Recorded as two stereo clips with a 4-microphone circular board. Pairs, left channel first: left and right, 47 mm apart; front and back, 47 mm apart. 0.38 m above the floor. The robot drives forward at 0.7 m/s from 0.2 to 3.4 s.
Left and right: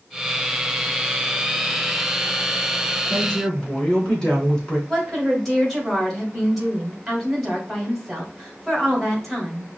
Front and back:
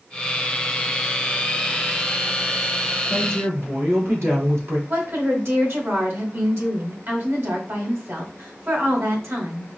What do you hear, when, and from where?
3.1 s a woman speaking: 165° left, 2 m
4.9 s a woman speaking: straight behind, 2.0 m